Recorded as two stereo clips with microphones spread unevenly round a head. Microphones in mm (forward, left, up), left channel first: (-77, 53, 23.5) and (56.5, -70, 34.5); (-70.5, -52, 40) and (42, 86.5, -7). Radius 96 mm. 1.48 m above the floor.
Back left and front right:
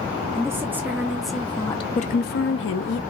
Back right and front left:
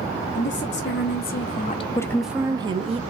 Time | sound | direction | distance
0.3 | a woman speaking | 115° right | 1.2 m